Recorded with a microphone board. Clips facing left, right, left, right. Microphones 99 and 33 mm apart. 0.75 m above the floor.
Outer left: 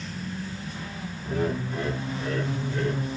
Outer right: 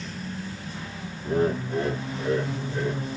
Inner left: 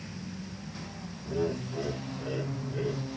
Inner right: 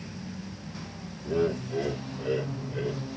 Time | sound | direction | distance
1.2 | laughter | 40° right (ahead or behind) | 1.3 m